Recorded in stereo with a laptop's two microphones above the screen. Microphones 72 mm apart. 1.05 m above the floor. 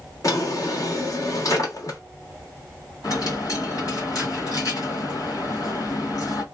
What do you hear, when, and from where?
0.2 s a drawer: 50° left (ahead or behind), 1.2 m
3.0 s a dropped coin: 60° left (ahead or behind), 1.4 m